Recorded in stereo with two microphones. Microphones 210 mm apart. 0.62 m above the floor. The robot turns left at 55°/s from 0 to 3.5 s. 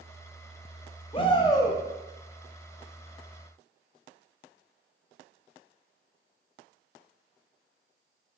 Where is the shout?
25° left (ahead or behind), 0.6 m; by 1.8 s 10° left (ahead or behind), 0.6 m.